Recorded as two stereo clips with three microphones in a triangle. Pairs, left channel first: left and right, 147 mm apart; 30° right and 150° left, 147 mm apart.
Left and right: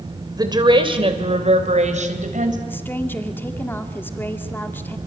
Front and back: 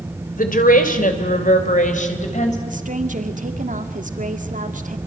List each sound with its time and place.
0.4 s a woman speaking: 25° right, 3 m; by 2.6 s 65° right, 4 m
2.7 s a woman speaking: 165° left, 2 m